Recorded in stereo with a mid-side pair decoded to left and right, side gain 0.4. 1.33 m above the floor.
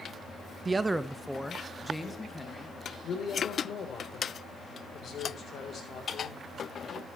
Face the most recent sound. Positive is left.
turn(degrees=60)